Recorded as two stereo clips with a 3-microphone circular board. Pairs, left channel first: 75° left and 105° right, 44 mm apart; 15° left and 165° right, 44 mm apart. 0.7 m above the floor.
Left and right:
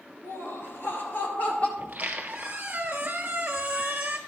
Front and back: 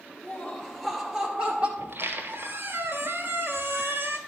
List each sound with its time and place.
0.2 s laughter: 75° left, 2.5 m; by 1.7 s 135° left, 2.5 m
1.8 s a squeak: 155° right, 1.2 m